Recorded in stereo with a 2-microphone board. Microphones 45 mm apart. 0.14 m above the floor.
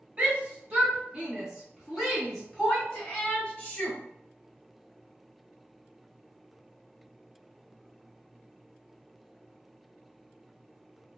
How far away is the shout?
About 1.6 m.